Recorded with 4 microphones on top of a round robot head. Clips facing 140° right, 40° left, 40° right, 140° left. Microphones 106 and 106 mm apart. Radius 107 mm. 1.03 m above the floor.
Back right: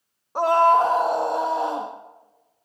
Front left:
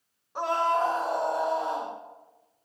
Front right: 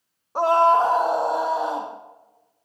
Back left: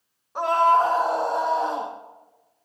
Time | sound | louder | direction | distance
0.3 | a scream | back right 9 dB, front right 2 dB | 90° right | 0.9 m